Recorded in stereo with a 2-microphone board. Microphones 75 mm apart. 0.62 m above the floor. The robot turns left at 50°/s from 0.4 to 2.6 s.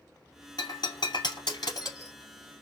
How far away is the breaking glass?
About 2.5 m.